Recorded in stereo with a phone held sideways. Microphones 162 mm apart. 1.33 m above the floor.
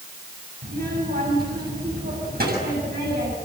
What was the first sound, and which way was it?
A child speaking, 70° right (ahead or behind).